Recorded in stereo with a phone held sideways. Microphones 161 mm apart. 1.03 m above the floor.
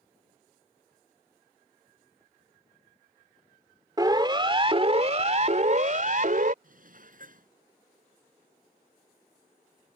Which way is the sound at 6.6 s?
60° right (ahead or behind).